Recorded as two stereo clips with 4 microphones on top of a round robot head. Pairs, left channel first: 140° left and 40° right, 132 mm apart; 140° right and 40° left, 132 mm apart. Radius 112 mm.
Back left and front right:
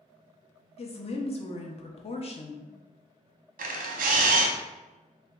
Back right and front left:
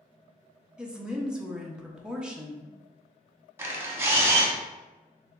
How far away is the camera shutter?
About 0.6 m.